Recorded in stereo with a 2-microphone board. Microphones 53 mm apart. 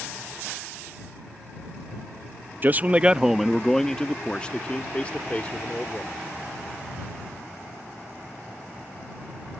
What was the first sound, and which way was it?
A man speaking, 35° right (ahead or behind).